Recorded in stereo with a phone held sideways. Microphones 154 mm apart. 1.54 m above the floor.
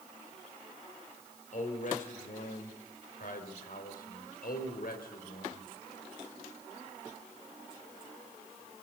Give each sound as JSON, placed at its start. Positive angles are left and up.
{"t": 1.5, "sound": "a man speaking", "side_deg": 55, "distance_m": 5.5}